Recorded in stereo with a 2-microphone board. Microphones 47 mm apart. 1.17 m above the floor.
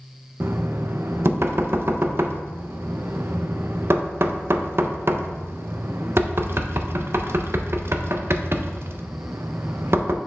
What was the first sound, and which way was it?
Knocking, 55° right (ahead or behind).